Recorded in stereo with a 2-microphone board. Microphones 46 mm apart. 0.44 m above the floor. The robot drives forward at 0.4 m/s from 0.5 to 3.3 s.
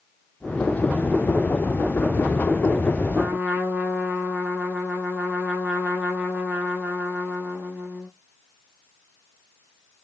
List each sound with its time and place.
3.1 s a trumpet: 40° right (ahead or behind), 4.5 m